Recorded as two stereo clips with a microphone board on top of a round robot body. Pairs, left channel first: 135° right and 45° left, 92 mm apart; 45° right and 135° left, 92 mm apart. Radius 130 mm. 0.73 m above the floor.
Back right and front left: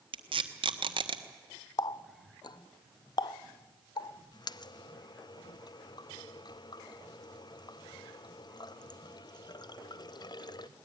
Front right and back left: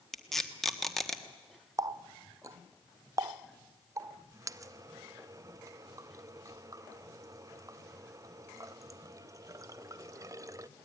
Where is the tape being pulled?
40° left, 1.5 m.